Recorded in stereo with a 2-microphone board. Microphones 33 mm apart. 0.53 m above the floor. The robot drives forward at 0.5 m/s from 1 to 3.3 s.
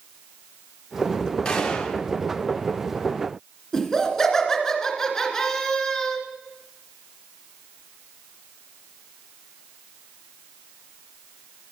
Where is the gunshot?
20° left (ahead or behind), 1.3 m; by 2.0 s 30° left (ahead or behind), 1.1 m.